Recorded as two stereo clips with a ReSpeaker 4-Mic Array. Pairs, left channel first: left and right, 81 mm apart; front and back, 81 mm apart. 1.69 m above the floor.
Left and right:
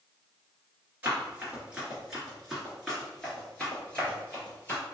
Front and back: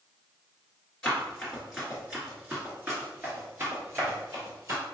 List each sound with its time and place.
1.0 s running footsteps: 65° right, 1.7 m; by 4.8 s 155° left, 2.5 m